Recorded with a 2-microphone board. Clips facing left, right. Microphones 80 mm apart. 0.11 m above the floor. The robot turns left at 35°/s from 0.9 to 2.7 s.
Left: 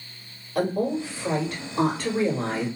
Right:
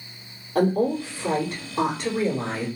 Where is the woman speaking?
120° right, 2.5 m; by 2.7 s straight behind, 2.5 m.